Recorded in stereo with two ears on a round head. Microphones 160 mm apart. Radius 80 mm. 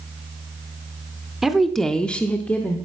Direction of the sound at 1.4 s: Centre (ahead or behind).